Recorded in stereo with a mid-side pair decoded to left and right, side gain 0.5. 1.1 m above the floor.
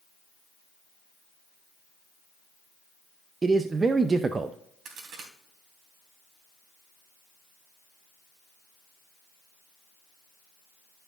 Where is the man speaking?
25° right, 0.6 m.